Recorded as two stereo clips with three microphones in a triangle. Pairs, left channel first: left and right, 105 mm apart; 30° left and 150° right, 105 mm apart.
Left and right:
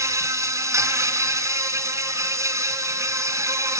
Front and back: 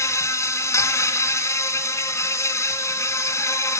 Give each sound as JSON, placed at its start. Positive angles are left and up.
{"t": 0.0, "sound": "an insect", "azimuth_deg": -30, "distance_m": 3.0}